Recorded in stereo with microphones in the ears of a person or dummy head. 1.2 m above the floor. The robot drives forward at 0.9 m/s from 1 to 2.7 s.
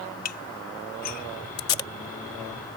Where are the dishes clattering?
45° left (ahead or behind); by 1.3 s 40° left (ahead or behind).